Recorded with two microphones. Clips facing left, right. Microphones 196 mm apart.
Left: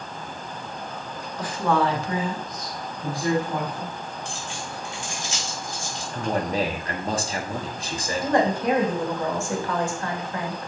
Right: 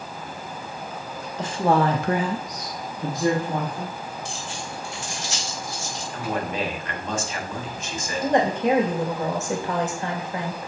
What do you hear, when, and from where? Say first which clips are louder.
1.4 s a woman speaking: right 2 dB; 25° right (ahead or behind), 1.4 m
4.2 s keys jangling: right 1 dB; 75° right (ahead or behind), 2 m
6.1 s a man speaking: left 3 dB; 35° left (ahead or behind), 1.3 m
8.2 s a woman speaking: right 1 dB; 20° right (ahead or behind), 1.8 m